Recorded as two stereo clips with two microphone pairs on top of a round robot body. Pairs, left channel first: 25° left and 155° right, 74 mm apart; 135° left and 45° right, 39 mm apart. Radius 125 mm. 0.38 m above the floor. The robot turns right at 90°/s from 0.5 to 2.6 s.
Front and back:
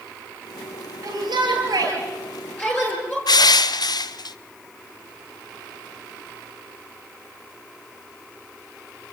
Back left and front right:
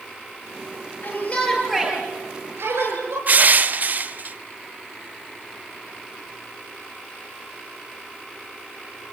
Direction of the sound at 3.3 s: Straight ahead.